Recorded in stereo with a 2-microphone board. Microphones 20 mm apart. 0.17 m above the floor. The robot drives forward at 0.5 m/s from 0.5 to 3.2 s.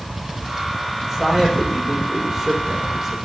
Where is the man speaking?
10° right (ahead or behind), 6 m.